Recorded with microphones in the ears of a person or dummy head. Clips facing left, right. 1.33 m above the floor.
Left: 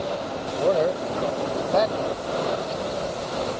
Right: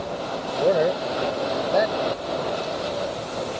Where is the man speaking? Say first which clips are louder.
Right 1 dB; 15° right (ahead or behind).